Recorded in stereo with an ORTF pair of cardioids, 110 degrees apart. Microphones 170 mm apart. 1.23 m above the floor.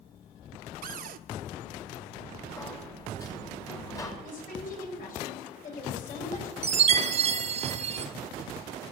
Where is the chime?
40° right, 1.4 m.